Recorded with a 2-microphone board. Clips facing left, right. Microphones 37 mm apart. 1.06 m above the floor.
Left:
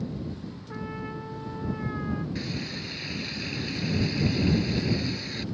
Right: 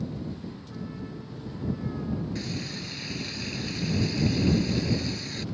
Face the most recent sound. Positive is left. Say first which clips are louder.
# left 1 dB
turn(degrees=10)  # may be behind; listen again after turning